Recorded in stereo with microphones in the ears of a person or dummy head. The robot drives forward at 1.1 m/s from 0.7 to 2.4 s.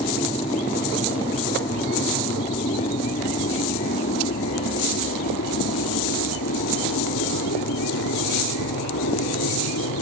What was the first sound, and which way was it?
An aircraft, 20° left (ahead or behind).